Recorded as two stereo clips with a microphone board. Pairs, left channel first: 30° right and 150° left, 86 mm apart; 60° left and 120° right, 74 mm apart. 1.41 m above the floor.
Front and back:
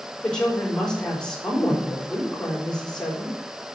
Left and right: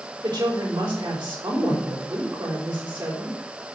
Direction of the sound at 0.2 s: 110° right.